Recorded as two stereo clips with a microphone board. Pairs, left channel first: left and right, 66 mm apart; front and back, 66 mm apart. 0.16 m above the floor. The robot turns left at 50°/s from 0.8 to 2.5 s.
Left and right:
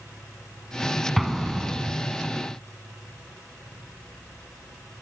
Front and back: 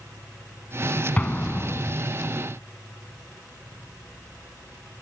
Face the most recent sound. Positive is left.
turn(degrees=-65)